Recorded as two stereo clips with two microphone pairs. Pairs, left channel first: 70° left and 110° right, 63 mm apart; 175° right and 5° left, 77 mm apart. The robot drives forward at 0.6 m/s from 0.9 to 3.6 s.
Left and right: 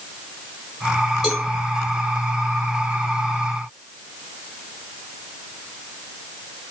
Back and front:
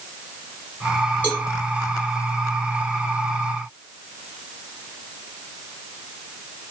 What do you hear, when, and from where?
1.2 s a cowbell: 155° left, 1.6 m; by 1.5 s 160° left, 1.6 m